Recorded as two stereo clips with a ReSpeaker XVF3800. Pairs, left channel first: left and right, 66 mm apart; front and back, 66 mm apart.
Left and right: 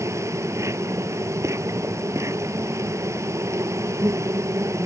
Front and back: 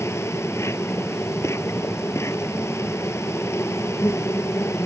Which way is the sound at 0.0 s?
45° right.